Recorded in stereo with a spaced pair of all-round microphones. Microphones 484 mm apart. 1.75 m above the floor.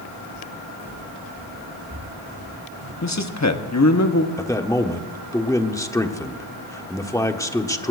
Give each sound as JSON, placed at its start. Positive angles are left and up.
{"t": 0.3, "sound": "footsteps", "side_deg": -20, "distance_m": 6.5}
{"t": 3.0, "sound": "a man speaking", "side_deg": 35, "distance_m": 1.0}
{"t": 4.4, "sound": "a man speaking", "side_deg": 5, "distance_m": 0.9}